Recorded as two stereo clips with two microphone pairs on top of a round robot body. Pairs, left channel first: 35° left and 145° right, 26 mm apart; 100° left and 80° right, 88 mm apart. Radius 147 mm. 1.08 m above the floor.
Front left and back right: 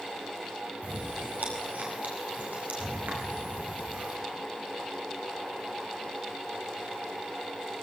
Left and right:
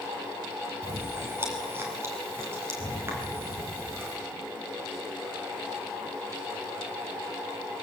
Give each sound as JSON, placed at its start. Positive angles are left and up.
{"t": 0.8, "sound": "chewing", "azimuth_deg": -145, "distance_m": 5.0}